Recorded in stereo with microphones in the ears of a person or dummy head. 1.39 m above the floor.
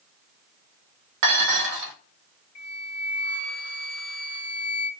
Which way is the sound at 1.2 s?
55° right (ahead or behind).